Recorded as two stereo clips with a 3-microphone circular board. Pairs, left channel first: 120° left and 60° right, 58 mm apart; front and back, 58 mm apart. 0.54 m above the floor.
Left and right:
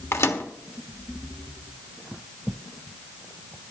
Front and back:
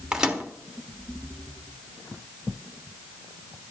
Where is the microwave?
105° left, 1.3 m.